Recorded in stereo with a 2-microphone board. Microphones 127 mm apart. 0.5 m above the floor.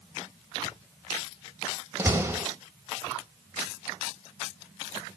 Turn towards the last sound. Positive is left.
turn(degrees=-20)  # may be behind; listen again after turning